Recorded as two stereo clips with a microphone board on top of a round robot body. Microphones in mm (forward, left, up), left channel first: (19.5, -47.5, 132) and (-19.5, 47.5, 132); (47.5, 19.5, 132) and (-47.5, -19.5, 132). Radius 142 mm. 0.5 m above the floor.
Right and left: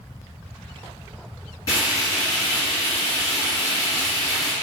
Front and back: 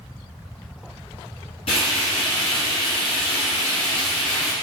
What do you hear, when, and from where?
1.7 s frying: 10° right, 1.9 m